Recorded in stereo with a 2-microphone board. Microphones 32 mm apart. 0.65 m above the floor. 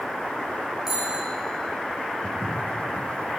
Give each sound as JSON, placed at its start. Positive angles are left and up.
{"t": 0.9, "sound": "a bicycle bell", "side_deg": -15, "distance_m": 9.5}
{"t": 2.2, "sound": "footsteps", "side_deg": 70, "distance_m": 6.0}